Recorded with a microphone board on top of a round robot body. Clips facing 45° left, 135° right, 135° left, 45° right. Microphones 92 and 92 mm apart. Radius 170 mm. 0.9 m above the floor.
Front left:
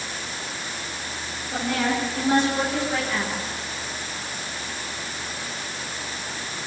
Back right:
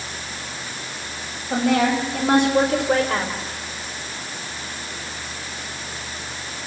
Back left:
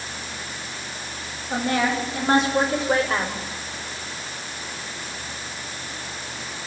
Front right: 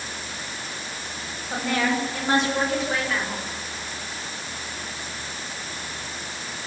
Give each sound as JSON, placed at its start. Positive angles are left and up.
{"t": 1.5, "sound": "a woman speaking", "azimuth_deg": -135, "distance_m": 5.0}